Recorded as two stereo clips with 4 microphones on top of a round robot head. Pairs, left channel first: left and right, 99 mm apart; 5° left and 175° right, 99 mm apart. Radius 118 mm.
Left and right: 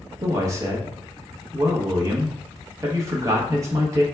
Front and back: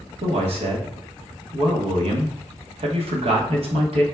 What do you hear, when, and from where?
0.2 s a man speaking: 150° right, 1.0 m